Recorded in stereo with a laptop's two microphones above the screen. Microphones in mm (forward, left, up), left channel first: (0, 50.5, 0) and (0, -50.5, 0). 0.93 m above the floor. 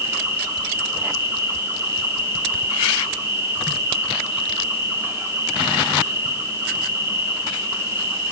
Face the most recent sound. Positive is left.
turn(degrees=-30)  # may be behind; listen again after turning